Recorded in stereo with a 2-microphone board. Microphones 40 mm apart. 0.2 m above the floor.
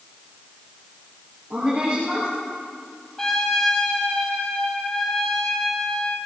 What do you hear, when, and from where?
1.5 s a woman speaking: 30° right (ahead or behind), 4.5 m
3.2 s a trumpet: 10° left (ahead or behind), 2.5 m